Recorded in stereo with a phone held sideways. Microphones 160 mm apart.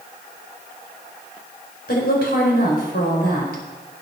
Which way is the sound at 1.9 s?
80° left.